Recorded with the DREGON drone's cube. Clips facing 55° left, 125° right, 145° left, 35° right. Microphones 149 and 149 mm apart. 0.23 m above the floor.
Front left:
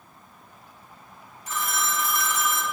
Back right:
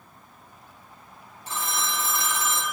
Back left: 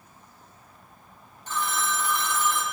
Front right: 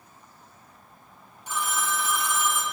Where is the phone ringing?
105° right, 1.0 m.